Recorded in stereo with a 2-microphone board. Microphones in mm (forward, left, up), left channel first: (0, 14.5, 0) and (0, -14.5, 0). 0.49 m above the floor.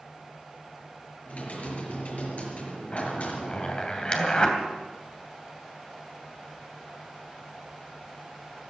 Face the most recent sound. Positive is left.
turn(degrees=35)  # may be behind; listen again after turning